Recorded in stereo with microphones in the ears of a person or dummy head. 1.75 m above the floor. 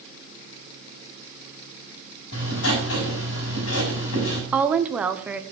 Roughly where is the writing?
Left.